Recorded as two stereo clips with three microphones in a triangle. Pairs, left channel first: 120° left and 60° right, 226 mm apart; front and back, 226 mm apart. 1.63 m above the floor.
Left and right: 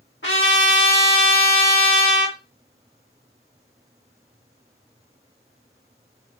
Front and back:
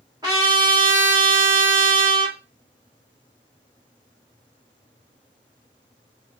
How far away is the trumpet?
About 1.0 m.